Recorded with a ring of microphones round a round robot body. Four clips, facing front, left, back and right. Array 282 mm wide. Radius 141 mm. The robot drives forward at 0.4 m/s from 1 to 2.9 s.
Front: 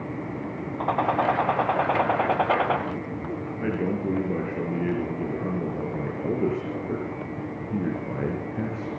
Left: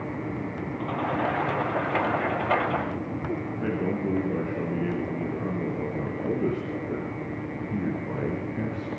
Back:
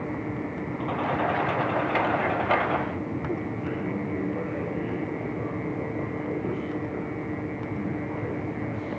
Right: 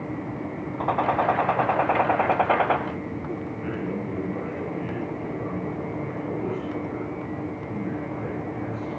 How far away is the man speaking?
About 5 m.